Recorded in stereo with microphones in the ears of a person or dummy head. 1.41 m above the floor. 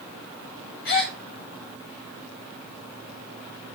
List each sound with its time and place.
0.8 s a gasp: 60° left (ahead or behind), 2.5 m